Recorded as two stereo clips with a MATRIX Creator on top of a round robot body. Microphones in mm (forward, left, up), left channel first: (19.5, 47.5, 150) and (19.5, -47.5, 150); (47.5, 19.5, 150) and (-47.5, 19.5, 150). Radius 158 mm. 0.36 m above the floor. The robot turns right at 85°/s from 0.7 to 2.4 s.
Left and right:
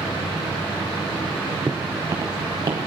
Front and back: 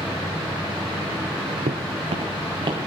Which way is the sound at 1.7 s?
165° right.